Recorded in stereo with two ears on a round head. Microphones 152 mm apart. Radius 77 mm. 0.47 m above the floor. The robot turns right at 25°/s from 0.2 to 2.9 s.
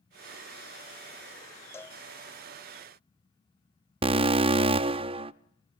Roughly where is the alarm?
Right.